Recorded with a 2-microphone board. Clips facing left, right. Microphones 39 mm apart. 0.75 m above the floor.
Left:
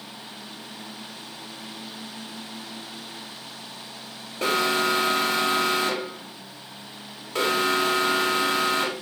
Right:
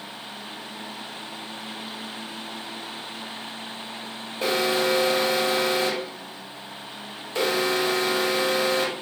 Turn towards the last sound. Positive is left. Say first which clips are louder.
# even
turn(degrees=60)  # may be behind; listen again after turning